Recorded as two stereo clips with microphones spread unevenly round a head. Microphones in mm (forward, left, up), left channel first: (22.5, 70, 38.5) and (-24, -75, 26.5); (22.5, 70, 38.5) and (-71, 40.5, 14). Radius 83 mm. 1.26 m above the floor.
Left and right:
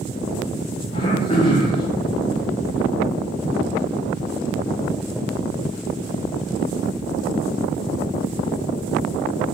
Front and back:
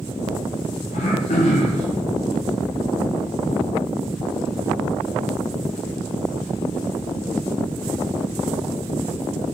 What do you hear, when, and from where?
0.9 s throat clearing: 10° left, 0.7 m